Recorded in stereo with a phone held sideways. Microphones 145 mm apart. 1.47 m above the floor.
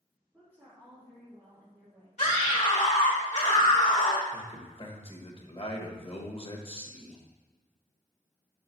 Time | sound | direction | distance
0.3 | a woman speaking | 10° right (ahead or behind) | 2.5 m
2.2 | a scream | 50° left (ahead or behind) | 1.4 m
4.3 | a man speaking | 45° left (ahead or behind) | 1.2 m